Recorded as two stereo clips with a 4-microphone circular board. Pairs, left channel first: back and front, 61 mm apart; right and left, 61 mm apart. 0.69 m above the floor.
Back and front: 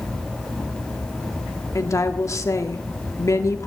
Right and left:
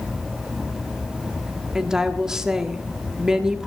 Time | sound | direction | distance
1.8 | a woman speaking | 170° left | 1.4 m